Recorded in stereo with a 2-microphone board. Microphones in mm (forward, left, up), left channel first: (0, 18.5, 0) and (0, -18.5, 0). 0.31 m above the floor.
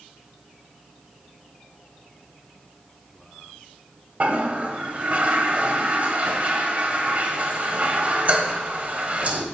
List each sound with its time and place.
4.2 s a toilet flushing: 45° right (ahead or behind), 1.2 m